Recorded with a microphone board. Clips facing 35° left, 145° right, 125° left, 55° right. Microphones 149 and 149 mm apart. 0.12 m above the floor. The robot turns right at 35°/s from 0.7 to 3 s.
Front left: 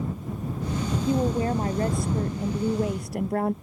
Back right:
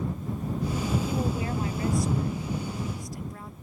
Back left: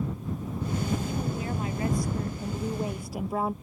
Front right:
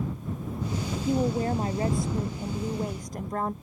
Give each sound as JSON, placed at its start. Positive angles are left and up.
{"t": 1.1, "sound": "a woman speaking", "azimuth_deg": -25}